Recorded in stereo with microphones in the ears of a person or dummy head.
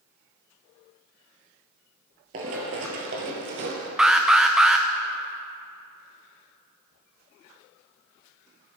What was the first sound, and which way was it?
Running footsteps, 30° right (ahead or behind).